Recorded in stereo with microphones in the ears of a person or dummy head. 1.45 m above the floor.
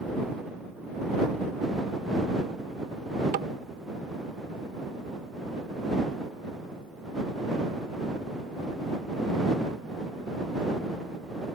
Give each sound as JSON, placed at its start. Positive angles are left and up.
{"t": 3.3, "sound": "tapping", "side_deg": -55}